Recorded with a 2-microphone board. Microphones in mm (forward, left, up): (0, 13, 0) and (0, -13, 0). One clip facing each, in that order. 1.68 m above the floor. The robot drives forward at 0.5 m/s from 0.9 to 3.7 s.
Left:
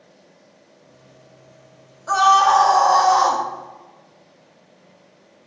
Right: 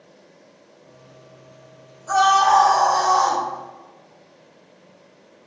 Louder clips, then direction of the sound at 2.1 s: Left 2 dB; 30° left (ahead or behind).